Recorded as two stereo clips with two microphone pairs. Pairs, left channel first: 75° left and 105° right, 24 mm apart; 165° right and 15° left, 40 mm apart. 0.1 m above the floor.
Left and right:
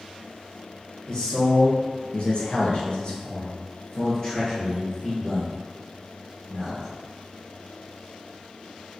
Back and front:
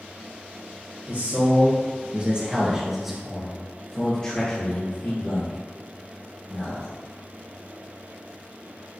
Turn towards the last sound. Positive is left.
turn(degrees=160)